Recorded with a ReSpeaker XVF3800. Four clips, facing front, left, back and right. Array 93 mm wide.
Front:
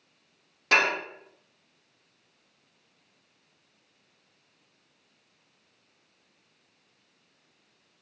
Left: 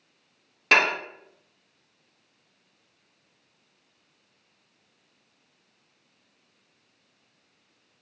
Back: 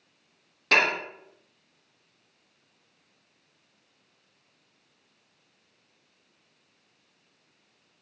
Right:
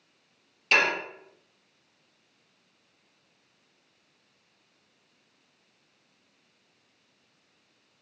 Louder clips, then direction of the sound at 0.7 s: Left 3 dB, even; 80° left.